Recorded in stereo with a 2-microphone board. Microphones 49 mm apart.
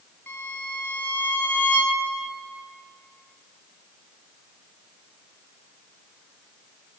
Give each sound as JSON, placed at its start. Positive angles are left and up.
{"t": 0.3, "sound": "a violin", "side_deg": 40, "distance_m": 0.5}